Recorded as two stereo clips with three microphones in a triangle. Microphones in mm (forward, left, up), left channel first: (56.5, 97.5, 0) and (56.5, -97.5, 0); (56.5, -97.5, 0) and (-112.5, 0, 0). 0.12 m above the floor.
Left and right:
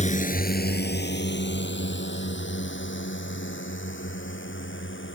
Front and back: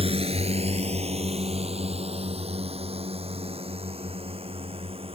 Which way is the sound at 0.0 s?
110° left.